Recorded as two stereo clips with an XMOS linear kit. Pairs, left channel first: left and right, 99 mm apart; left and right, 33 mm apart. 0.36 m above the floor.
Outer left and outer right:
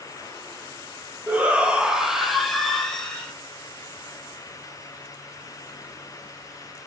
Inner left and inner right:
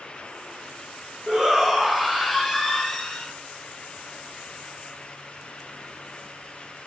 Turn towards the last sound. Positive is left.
turn(degrees=10)  # may be behind; listen again after turning